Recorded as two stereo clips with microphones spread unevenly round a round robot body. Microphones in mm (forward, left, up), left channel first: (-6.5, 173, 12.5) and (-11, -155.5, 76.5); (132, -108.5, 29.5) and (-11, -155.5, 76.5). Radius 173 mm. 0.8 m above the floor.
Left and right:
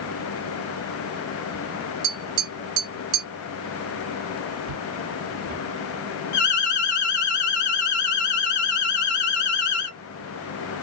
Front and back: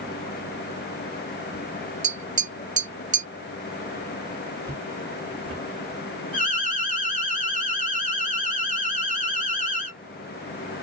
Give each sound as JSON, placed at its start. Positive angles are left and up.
{"t": 2.0, "sound": "tapping", "azimuth_deg": -125, "distance_m": 2.0}
{"t": 4.6, "sound": "footsteps", "azimuth_deg": -110, "distance_m": 1.5}
{"t": 6.3, "sound": "an alarm", "azimuth_deg": 90, "distance_m": 2.0}